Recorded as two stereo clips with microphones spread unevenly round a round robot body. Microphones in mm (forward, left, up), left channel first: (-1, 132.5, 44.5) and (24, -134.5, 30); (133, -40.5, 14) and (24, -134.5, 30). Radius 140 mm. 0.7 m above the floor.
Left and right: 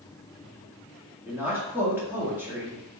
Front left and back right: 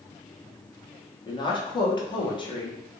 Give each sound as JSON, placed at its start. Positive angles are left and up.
{"t": 1.3, "sound": "a woman speaking", "azimuth_deg": -5, "distance_m": 1.2}